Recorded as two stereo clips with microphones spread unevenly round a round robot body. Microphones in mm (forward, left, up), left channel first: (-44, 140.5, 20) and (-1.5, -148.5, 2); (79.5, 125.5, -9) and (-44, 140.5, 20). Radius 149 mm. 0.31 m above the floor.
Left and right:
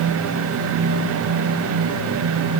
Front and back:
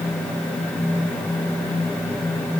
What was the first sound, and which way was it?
Only background noise.